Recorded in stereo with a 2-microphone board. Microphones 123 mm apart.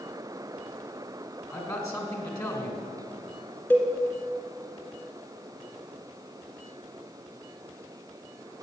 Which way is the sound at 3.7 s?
15° left (ahead or behind).